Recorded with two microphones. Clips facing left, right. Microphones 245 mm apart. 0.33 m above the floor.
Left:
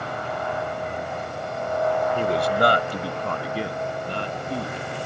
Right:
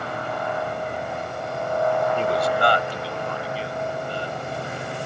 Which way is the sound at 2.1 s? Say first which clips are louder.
Left 1 dB; 10° left (ahead or behind).